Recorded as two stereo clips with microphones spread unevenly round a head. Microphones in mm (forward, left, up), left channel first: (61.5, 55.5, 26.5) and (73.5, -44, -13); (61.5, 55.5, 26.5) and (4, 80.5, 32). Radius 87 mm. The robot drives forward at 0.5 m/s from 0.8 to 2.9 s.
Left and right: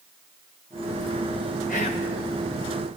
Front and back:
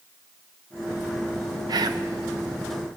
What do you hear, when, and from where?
1.7 s whispering: 140° left, 0.8 m; by 2.1 s 150° left, 1.0 m